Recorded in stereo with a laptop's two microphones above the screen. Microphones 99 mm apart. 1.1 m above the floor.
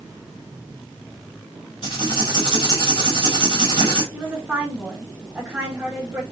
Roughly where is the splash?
I don't hear a splash.